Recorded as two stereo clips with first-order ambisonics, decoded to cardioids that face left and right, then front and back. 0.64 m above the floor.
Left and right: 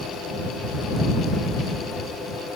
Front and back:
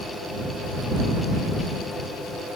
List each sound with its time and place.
Only background noise.